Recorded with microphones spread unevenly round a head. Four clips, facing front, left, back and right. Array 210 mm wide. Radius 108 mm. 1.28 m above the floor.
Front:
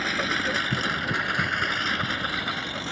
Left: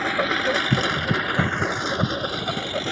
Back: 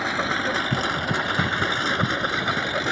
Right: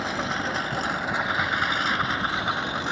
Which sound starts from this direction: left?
A lawn mower, at 0.0 s.